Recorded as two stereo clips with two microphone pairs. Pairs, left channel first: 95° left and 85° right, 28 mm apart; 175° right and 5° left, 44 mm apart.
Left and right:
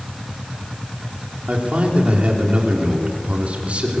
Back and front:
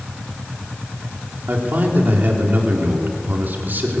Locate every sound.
1.5 s a man speaking: 40° right, 3.5 m